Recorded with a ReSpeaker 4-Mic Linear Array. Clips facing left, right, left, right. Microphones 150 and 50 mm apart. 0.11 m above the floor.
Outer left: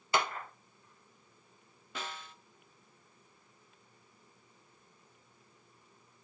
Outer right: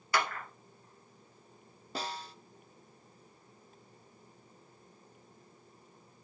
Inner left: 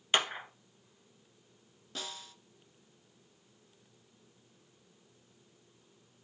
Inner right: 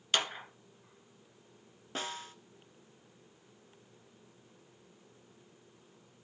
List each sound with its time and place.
0.1 s a clap: 20° left (ahead or behind), 1.2 m
1.9 s a snare drum: 35° right (ahead or behind), 0.6 m